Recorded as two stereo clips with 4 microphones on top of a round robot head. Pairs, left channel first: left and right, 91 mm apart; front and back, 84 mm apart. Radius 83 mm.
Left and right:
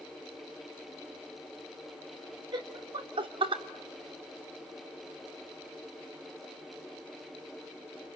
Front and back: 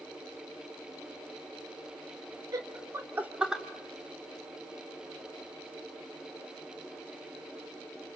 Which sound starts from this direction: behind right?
Laughter, at 2.5 s.